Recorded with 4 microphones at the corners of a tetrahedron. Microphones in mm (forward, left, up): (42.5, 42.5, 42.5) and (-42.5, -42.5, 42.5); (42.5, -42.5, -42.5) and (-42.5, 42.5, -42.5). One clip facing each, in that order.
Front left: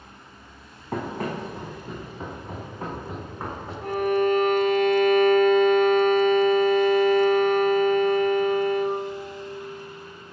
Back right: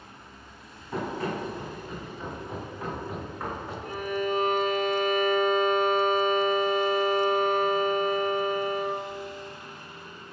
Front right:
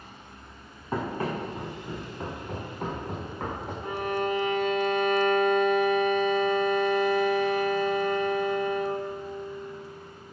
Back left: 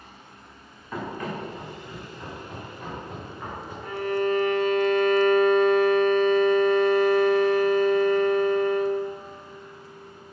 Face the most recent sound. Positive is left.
turn(degrees=25)